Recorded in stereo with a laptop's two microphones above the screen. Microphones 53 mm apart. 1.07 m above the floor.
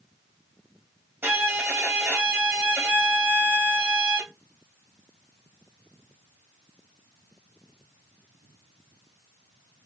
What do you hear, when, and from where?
1.2 s a violin: 45° right (ahead or behind), 2 m